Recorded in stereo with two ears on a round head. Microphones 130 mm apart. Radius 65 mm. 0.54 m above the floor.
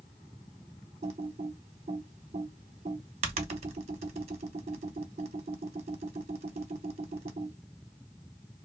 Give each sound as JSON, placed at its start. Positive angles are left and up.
{"t": 1.0, "sound": "typing on a keyboard", "side_deg": -45, "distance_m": 0.7}